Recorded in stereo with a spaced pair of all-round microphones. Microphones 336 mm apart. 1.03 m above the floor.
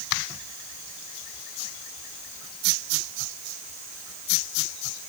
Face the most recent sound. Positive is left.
No sound to turn to.